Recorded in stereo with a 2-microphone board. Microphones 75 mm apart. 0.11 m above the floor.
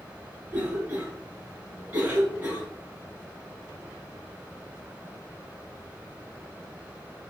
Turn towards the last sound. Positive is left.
turn(degrees=-20)  # may be behind; listen again after turning